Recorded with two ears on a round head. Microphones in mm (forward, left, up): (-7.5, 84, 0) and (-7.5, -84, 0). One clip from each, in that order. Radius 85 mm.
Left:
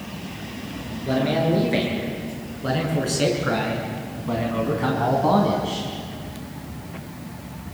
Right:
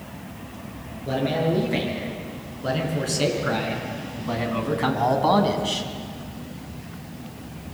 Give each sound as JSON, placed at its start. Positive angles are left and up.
{"t": 1.1, "sound": "a man speaking", "side_deg": 5, "distance_m": 8.0}